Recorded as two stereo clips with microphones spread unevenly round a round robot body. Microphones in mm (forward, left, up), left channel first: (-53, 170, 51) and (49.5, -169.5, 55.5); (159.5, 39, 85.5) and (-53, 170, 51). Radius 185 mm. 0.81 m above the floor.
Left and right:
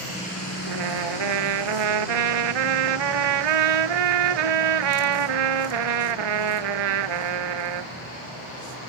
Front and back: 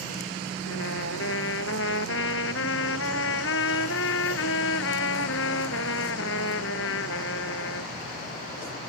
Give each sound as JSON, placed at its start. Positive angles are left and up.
{"t": 0.7, "sound": "a trumpet", "azimuth_deg": -85}